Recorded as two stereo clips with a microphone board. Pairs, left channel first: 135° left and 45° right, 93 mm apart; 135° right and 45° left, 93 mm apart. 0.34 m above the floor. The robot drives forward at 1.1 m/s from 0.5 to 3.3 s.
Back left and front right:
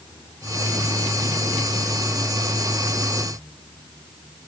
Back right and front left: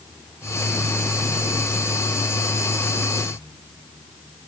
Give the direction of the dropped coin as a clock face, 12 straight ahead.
No dropped coin in this recording.